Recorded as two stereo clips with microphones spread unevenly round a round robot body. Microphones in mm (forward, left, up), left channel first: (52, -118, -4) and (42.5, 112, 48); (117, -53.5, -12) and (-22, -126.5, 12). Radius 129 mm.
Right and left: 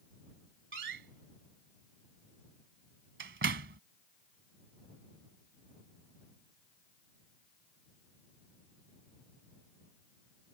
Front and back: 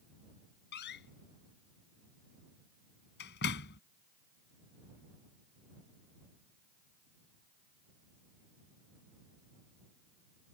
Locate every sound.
0.7 s a door slam: 55° left